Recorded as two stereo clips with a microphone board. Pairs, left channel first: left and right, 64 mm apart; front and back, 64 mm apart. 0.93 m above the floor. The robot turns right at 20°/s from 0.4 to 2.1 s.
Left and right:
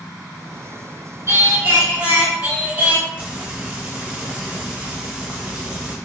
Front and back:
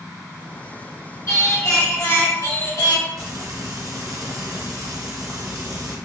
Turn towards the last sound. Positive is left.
turn(degrees=-160)